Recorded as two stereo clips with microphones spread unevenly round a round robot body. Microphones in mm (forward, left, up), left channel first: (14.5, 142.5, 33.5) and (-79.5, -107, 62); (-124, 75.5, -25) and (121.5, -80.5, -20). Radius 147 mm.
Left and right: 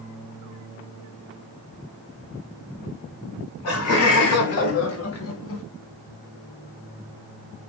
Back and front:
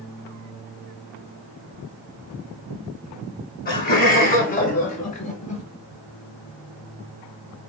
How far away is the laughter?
About 3 m.